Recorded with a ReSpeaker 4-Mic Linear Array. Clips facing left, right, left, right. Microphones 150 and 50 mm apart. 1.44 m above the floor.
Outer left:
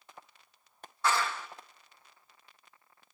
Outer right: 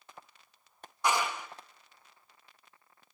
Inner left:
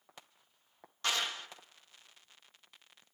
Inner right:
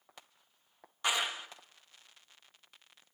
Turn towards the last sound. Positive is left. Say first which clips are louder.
# even, inner right 2 dB
turn(degrees=-15)  # may be behind; listen again after turning